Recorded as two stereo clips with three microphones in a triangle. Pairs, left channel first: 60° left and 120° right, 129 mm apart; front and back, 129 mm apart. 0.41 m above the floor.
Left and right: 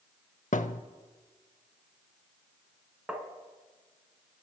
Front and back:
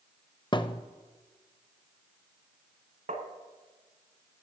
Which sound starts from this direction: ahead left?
A thud, at 0.5 s.